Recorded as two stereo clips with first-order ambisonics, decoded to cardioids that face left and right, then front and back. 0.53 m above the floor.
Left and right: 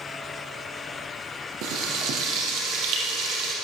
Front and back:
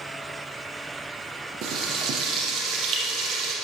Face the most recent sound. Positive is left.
turn(degrees=-125)